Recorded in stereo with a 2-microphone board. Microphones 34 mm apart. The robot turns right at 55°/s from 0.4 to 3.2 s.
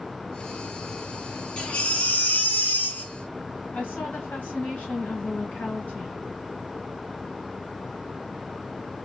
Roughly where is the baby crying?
Ahead left.